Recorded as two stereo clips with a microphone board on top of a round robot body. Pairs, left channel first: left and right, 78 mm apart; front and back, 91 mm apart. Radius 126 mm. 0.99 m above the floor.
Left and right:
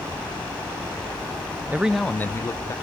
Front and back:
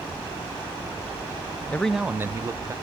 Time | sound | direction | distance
1.7 | a man speaking | 55° right | 0.5 m